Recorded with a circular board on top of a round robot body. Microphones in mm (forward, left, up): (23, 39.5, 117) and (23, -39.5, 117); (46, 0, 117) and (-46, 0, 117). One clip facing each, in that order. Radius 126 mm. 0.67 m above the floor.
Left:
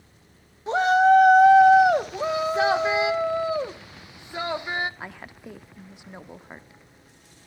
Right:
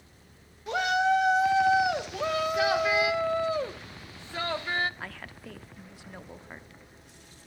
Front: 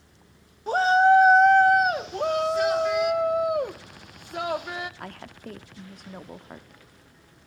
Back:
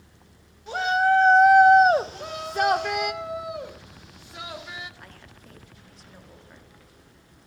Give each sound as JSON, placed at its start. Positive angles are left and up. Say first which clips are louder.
{"t": 0.7, "sound": "a shout", "louder": "left 8 dB, front 4 dB", "azimuth_deg": 35, "distance_m": 1.4}
{"t": 2.1, "sound": "a shout", "louder": "left 3 dB, front 6 dB", "azimuth_deg": 20, "distance_m": 1.4}
{"t": 5.0, "sound": "a woman speaking", "louder": "left 2 dB, front 9 dB", "azimuth_deg": 20, "distance_m": 1.6}